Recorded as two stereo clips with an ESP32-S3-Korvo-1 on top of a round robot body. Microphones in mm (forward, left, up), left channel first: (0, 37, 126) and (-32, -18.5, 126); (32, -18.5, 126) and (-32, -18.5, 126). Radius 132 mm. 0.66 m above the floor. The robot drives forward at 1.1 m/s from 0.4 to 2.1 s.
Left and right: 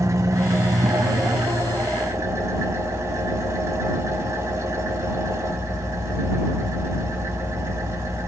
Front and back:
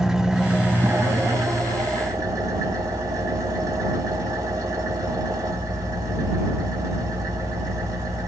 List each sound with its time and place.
0.0 s an engine running: 100° right, 1.0 m; by 8.3 s 160° right, 2 m